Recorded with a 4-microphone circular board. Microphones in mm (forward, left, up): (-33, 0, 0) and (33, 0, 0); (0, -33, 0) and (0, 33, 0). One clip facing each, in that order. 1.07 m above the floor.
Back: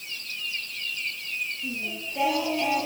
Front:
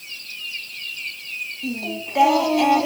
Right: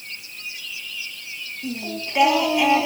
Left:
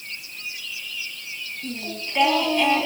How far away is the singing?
About 2.5 m.